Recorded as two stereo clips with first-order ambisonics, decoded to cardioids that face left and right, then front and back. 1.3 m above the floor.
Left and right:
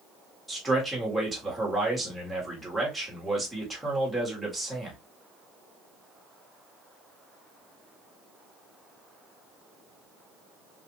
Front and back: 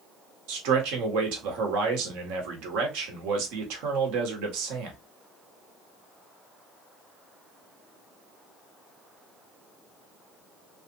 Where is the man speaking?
Straight behind, 1.3 m.